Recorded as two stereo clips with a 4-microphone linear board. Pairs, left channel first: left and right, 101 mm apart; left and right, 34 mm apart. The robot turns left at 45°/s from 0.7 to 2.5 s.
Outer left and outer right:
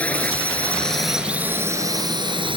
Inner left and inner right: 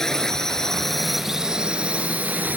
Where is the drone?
15° left; by 2.6 s 65° right.